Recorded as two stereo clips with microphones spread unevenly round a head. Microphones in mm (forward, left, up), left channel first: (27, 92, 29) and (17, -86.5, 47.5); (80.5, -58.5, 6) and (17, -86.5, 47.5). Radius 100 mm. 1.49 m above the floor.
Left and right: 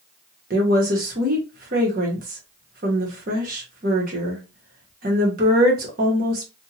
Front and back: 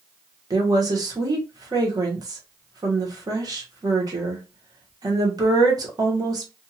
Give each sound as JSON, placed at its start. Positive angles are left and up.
{"t": 0.5, "sound": "a woman speaking", "azimuth_deg": -140, "distance_m": 1.0}